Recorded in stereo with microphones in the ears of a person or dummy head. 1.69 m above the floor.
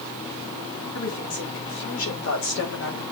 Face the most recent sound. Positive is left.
turn(degrees=75)  # may be behind; listen again after turning